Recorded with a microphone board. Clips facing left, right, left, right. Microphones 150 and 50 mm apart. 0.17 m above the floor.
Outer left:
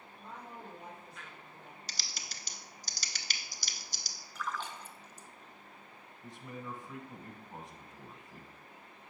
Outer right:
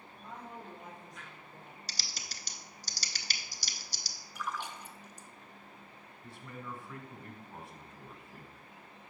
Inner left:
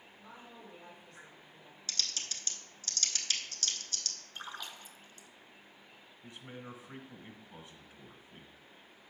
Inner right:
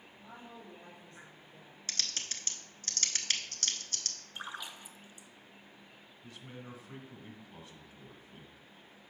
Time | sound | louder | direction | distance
0.2 | a woman speaking | outer right 1 dB, inner right 2 dB | 55° right (ahead or behind) | 3.5 m
1.9 | typing on a keyboard | outer right 1 dB, even | 45° right (ahead or behind) | 0.8 m
4.3 | a splash | even, inner right 2 dB | 15° right (ahead or behind) | 0.5 m
6.2 | a man speaking | outer left 2 dB, inner left 1 dB | 20° left (ahead or behind) | 1.0 m